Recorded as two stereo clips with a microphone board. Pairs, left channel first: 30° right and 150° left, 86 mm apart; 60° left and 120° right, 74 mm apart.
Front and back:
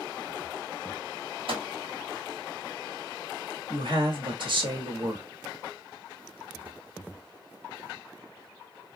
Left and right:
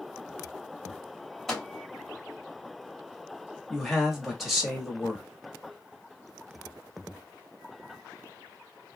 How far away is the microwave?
About 1.2 m.